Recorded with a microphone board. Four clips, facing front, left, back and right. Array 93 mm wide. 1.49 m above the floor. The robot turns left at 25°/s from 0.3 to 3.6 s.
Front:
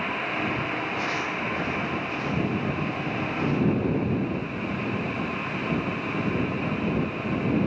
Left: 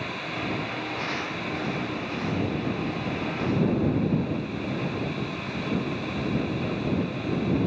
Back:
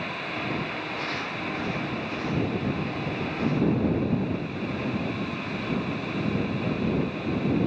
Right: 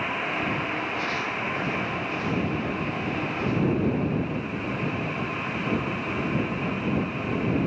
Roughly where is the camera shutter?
I don't hear a camera shutter.